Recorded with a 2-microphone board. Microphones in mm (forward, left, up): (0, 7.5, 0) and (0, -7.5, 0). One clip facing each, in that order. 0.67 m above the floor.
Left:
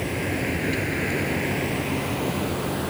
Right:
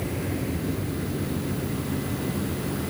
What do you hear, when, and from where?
0.0 s a vehicle: 35° left (ahead or behind); by 2.9 s 55° left (ahead or behind)